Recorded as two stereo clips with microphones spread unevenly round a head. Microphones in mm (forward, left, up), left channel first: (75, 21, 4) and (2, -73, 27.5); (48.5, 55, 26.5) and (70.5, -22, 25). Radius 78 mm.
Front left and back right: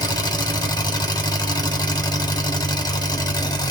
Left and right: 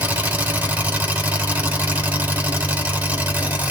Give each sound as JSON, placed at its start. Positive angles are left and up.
{"t": 0.0, "sound": "an engine running", "azimuth_deg": -5, "distance_m": 4.5}